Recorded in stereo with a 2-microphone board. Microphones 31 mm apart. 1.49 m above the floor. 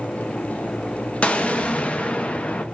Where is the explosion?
45° left (ahead or behind), 0.8 m.